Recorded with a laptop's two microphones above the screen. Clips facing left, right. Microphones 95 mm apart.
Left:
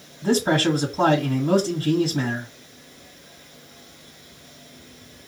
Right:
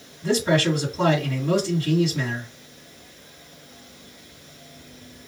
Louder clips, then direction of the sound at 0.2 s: Left 1 dB; 50° left (ahead or behind).